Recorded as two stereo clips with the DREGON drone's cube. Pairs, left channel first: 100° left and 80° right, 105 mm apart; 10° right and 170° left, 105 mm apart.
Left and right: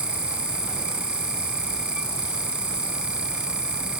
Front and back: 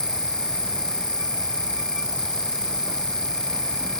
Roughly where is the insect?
Right.